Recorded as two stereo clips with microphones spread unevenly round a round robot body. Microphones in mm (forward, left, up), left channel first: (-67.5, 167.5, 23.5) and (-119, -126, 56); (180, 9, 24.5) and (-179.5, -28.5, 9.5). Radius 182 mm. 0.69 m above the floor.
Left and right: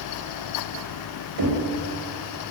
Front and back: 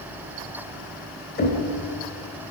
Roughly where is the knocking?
Ahead right.